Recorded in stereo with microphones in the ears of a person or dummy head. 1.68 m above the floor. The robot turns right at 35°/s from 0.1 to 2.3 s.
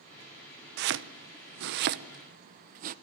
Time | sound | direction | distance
0.8 | chopping | 55° right (ahead or behind) | 0.9 m